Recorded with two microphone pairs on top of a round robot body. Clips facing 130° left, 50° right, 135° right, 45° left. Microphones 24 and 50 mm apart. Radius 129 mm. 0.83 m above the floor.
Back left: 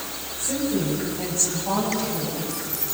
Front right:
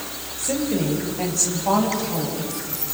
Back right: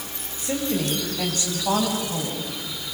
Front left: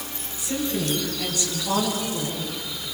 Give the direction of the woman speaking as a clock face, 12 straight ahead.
3 o'clock.